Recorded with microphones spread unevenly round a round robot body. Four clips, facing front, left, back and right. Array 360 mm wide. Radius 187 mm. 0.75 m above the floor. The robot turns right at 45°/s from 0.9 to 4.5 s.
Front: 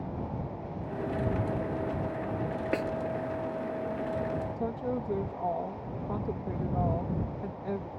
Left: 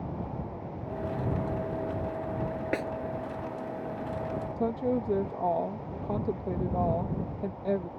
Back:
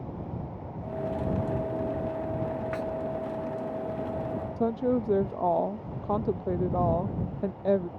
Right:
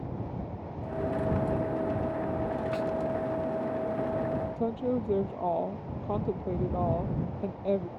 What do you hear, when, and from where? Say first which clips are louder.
2.7 s a snare drum: left 2 dB, front 2 dB; 45° left; by 2.9 s 50° left
4.6 s a woman speaking: left 5 dB, back 6 dB; 160° left